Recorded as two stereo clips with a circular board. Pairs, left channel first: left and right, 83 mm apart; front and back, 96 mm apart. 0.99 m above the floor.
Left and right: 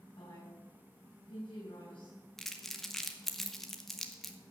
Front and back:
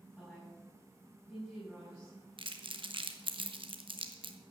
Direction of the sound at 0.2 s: 85° left.